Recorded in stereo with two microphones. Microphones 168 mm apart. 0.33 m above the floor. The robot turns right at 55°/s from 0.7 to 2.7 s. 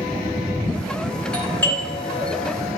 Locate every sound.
1.3 s a doorbell: 5° left (ahead or behind), 1.9 m; by 2.2 s 25° left (ahead or behind), 1.9 m